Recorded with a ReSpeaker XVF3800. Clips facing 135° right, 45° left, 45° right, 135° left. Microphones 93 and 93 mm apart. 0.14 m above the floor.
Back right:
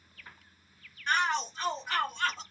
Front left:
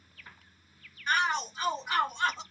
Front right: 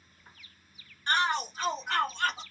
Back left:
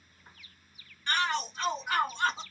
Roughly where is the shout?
Ahead right.